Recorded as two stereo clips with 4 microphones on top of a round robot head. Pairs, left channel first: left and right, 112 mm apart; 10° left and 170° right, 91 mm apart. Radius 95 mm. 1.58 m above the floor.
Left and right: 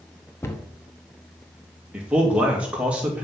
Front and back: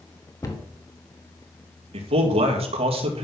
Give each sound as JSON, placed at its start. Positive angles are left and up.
{"t": 0.4, "sound": "a cupboard door", "azimuth_deg": 35, "distance_m": 1.0}
{"t": 1.9, "sound": "a man speaking", "azimuth_deg": -170, "distance_m": 2.5}